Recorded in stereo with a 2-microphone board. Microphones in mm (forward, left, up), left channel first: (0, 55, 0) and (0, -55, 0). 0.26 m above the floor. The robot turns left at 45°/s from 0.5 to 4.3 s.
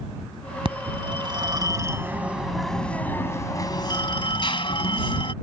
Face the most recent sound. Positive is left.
turn(degrees=105)